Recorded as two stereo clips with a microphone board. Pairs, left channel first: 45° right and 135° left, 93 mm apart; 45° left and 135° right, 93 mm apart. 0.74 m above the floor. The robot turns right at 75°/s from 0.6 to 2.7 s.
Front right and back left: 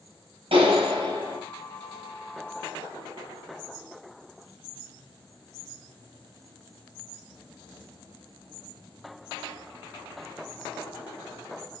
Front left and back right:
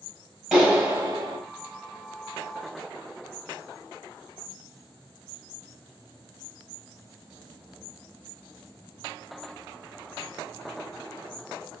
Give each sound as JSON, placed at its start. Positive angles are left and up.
{"t": 0.5, "sound": "a clap", "azimuth_deg": 145, "distance_m": 3.0}